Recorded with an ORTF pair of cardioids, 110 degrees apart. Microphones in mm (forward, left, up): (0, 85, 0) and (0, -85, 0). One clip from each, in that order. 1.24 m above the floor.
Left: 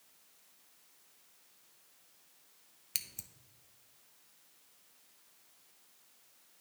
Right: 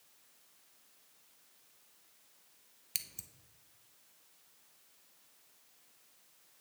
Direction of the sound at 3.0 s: Straight ahead.